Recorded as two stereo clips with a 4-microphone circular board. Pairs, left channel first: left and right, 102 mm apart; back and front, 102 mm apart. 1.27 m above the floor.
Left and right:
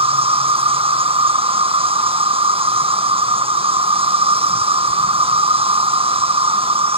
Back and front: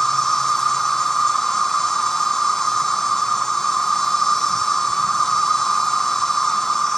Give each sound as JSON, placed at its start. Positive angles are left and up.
{"t": 0.0, "sound": "an insect", "azimuth_deg": -95}